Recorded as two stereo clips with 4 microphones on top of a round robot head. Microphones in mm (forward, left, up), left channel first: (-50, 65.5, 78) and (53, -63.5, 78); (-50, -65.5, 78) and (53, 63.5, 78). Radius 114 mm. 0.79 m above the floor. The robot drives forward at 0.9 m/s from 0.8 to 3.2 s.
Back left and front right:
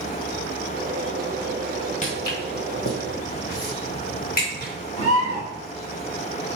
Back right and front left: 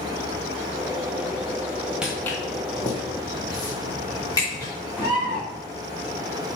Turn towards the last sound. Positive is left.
turn(degrees=170)